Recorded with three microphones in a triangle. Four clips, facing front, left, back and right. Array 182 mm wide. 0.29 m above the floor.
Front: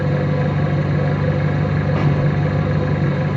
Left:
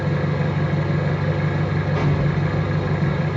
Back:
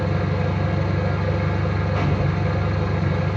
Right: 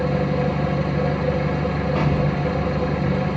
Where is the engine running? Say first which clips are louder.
Right 2 dB, front 4 dB; 5° right, 1.3 m.